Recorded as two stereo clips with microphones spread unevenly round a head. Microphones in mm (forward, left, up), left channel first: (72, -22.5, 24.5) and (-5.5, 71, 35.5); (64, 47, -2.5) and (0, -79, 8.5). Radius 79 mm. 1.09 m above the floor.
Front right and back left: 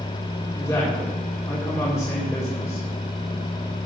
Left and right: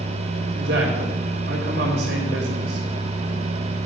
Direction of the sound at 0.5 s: 130° right.